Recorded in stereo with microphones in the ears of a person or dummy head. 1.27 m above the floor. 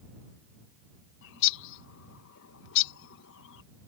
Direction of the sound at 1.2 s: 70° left (ahead or behind).